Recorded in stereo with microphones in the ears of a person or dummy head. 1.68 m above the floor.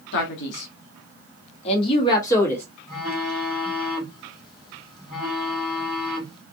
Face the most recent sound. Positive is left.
turn(degrees=0)  # may be behind; listen again after turning